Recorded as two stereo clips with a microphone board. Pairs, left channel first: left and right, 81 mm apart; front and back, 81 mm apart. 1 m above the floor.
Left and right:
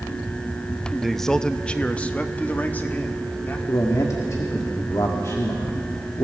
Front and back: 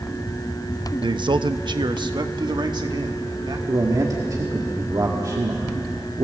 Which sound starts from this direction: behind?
A man speaking, at 1.0 s.